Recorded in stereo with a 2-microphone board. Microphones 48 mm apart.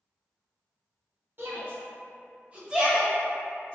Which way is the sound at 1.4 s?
50° right (ahead or behind).